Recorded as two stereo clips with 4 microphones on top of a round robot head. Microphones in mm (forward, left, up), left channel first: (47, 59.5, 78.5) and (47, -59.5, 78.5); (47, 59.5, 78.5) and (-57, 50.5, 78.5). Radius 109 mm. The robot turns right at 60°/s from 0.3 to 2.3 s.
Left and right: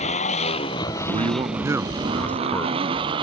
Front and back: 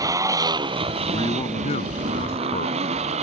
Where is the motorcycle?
130° left; by 3.2 s 145° right.